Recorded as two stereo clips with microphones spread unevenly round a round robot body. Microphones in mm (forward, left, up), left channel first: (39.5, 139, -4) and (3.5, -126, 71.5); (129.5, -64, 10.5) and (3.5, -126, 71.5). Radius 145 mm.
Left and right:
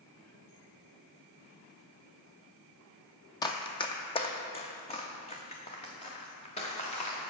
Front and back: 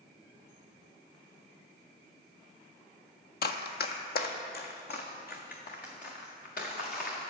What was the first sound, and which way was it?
Running footsteps, straight ahead.